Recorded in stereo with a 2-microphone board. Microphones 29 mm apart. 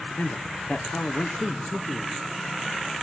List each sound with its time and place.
0.2 s a man speaking: 90° left, 0.9 m